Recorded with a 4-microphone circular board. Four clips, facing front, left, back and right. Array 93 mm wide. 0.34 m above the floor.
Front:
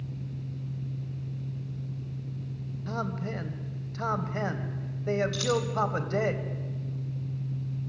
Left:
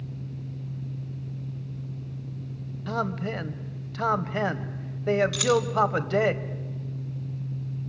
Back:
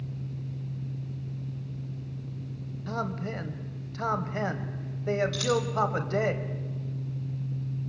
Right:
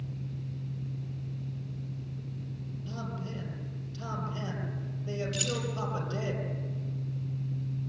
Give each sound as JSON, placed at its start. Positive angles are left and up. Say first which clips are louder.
{"t": 2.9, "sound": "a man speaking", "louder": "left 12 dB, back 1 dB", "azimuth_deg": 90, "distance_m": 1.4}
{"t": 5.3, "sound": "keys jangling", "louder": "left 12 dB, back 1 dB", "azimuth_deg": 85, "distance_m": 2.0}